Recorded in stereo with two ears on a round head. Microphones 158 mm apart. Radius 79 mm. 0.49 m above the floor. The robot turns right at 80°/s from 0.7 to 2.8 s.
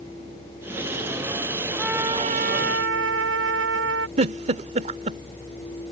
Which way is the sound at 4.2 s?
40° right (ahead or behind).